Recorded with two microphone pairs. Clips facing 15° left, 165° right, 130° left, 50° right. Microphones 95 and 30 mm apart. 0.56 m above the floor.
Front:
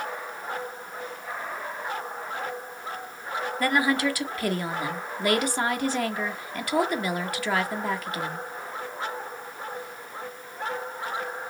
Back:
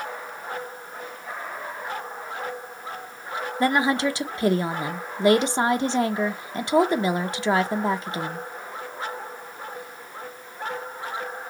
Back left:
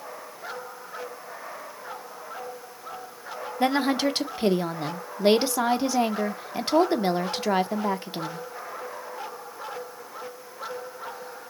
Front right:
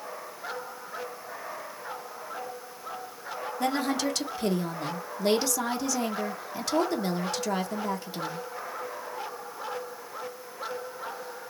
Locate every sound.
3.6 s a woman speaking: 150° left, 0.8 m